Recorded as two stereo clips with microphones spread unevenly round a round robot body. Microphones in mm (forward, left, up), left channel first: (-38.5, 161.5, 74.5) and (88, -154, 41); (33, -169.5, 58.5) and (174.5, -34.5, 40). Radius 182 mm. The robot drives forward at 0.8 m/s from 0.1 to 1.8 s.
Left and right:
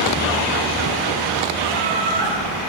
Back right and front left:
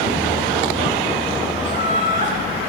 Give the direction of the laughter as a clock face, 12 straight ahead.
6 o'clock.